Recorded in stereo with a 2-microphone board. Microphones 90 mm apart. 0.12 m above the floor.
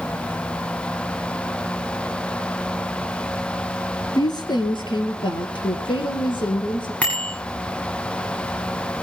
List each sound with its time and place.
4.2 s a woman speaking: 50° left (ahead or behind), 2.5 m; by 6.9 s 60° left (ahead or behind), 5.5 m
7.0 s a bicycle bell: 15° left (ahead or behind), 7 m